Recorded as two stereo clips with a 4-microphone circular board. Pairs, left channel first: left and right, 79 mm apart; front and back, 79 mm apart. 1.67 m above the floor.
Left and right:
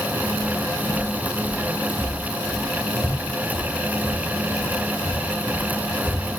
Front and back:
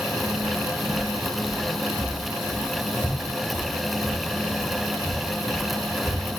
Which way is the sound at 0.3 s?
120° left.